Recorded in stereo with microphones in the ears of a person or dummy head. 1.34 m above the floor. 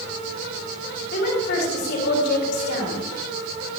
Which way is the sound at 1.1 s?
65° left (ahead or behind).